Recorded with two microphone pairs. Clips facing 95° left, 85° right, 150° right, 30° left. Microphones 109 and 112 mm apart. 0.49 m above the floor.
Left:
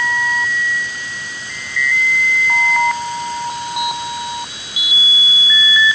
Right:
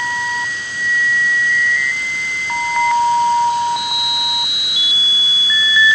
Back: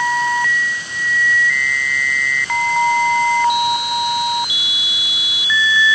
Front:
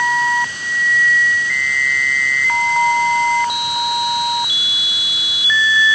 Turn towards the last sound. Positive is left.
No sound to turn to.